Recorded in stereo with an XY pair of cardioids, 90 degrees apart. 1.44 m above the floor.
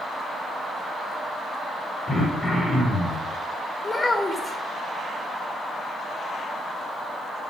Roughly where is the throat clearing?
Ahead left.